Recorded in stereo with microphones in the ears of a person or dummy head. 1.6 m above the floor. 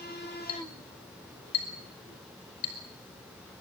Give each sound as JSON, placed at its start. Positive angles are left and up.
{"t": 0.5, "sound": "a clink", "side_deg": 35, "distance_m": 5.0}